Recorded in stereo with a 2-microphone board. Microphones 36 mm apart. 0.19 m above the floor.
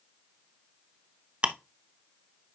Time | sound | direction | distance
1.4 | ticking | 35° right (ahead or behind) | 0.7 m